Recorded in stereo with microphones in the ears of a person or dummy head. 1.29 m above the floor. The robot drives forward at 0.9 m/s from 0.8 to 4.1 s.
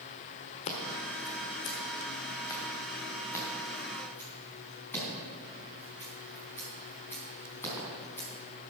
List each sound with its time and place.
0.7 s scissors: 30° left (ahead or behind), 1.3 m; by 8.3 s 10° left (ahead or behind), 4 m